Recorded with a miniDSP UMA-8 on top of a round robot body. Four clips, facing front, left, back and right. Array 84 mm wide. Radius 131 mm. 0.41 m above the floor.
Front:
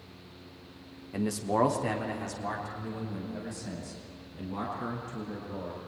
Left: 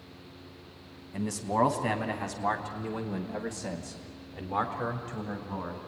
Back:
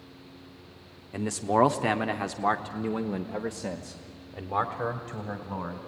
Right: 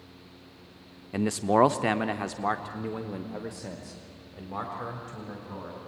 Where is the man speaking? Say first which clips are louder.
Right 6 dB, back 3 dB; 100° right, 1.2 m; by 5.8 s 165° left, 3 m.